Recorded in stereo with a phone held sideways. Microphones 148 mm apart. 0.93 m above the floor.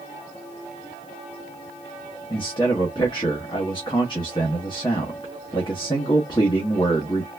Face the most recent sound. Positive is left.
turn(degrees=30)  # may be behind; listen again after turning